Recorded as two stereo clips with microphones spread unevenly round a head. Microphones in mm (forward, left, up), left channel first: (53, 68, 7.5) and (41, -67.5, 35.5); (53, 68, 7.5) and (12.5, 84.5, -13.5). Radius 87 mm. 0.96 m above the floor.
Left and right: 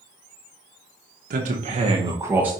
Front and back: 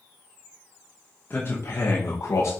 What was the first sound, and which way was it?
A man speaking, 100° right.